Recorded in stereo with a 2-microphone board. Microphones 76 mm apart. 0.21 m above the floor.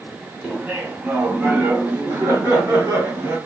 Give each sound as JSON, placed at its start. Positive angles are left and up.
{"t": 0.4, "sound": "laughter", "side_deg": -15, "distance_m": 1.2}